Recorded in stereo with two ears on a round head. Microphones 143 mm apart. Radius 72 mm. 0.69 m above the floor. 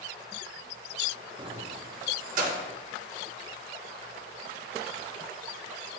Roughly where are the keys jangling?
Right.